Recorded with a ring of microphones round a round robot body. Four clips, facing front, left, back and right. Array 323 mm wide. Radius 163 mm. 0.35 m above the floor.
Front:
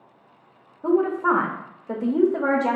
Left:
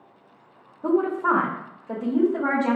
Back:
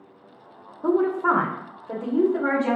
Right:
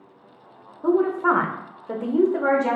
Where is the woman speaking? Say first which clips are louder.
Right 2 dB, front 1 dB; 175° right, 0.8 m; by 2.8 s 35° right, 1.2 m.